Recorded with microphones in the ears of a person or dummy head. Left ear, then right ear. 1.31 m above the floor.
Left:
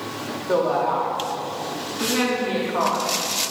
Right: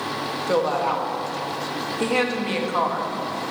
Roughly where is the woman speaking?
Right.